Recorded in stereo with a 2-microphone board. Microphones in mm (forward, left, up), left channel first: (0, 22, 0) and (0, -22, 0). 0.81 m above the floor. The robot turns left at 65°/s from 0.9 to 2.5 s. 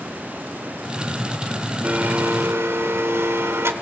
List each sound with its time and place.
1.8 s a blender: 35° right, 1.4 m; by 3.7 s 80° right, 1.4 m